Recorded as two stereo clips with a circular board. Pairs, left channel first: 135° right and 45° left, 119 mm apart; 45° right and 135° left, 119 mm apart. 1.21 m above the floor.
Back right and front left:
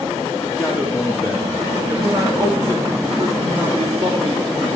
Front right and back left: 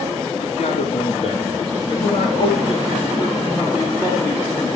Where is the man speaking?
45° right, 4 m; by 4.7 s 25° left, 4 m.